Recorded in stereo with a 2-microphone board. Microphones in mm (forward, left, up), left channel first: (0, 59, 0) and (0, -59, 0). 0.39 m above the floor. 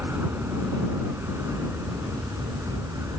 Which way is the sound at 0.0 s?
20° right (ahead or behind).